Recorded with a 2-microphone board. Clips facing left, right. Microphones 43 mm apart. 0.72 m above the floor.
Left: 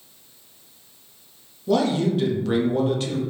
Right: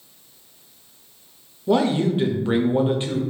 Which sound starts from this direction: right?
A man speaking, at 1.7 s.